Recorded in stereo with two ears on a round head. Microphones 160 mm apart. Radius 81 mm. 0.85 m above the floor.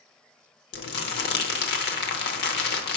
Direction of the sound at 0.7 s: 65° left (ahead or behind).